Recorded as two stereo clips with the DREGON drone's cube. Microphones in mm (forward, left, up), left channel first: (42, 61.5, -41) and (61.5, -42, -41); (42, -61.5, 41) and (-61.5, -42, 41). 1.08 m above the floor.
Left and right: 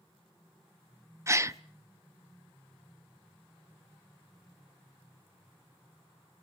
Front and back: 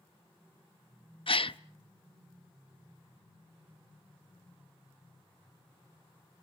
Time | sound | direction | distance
1.3 | a gasp | 20° right | 0.6 m